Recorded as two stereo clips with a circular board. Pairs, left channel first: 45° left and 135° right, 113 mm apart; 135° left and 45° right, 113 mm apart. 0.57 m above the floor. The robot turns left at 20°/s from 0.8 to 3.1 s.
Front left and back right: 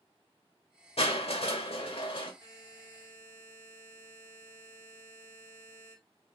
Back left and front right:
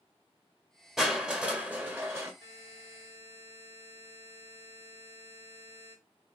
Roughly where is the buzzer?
Right.